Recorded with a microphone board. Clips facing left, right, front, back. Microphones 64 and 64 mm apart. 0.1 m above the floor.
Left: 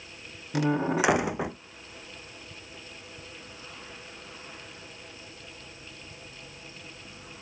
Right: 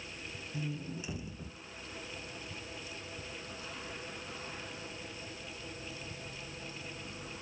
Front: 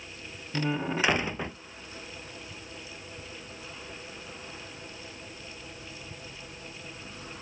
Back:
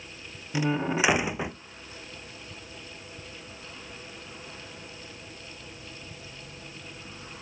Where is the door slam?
100° left.